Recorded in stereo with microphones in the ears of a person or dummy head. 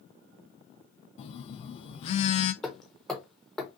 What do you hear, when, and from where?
1.2 s a phone buzzing: 40° left (ahead or behind), 0.6 m
2.6 s hammering: centre (ahead or behind), 0.9 m